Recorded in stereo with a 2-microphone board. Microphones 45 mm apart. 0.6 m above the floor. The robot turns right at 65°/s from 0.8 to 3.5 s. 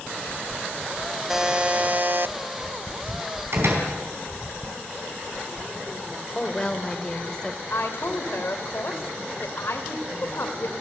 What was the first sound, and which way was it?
A buzzer, 170° right.